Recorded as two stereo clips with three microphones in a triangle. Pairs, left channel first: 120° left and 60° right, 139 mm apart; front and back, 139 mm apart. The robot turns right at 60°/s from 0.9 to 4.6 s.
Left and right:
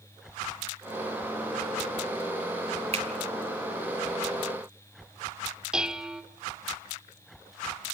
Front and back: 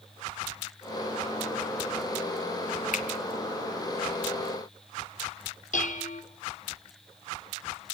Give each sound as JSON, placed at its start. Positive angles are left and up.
{"t": 2.9, "sound": "a finger snap", "azimuth_deg": -20, "distance_m": 1.9}
{"t": 5.7, "sound": "dishes clattering", "azimuth_deg": 25, "distance_m": 1.2}